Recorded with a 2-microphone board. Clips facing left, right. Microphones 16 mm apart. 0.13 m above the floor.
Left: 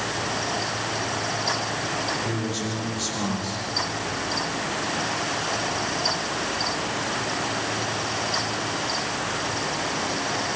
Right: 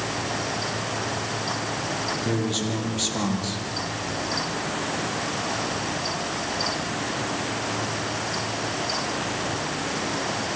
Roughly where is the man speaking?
Right.